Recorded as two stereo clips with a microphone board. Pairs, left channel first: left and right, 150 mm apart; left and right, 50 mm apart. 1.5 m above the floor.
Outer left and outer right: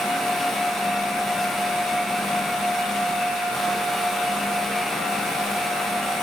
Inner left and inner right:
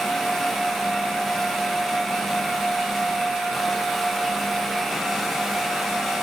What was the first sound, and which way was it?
Only background noise.